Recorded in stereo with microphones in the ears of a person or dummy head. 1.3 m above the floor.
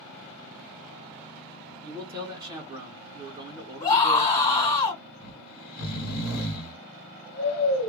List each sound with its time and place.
1.8 s a man speaking: 10° right (ahead or behind), 0.7 m
3.8 s a scream: 35° left (ahead or behind), 1.5 m
5.2 s snoring: 55° left (ahead or behind), 1.2 m